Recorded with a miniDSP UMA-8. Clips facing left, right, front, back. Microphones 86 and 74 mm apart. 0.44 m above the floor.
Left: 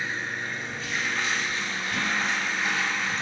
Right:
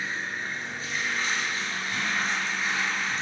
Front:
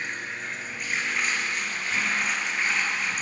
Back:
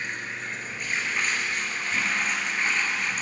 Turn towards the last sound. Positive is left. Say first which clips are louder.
# left 1 dB, even
turn(degrees=90)